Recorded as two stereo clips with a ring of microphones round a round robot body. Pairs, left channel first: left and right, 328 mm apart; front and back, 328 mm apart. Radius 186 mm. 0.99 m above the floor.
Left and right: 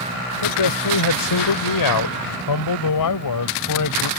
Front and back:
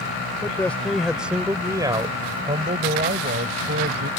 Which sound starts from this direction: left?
A man speaking, at 0.4 s.